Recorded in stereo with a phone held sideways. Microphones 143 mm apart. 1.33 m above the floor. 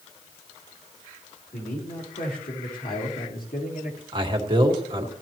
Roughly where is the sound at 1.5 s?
Left.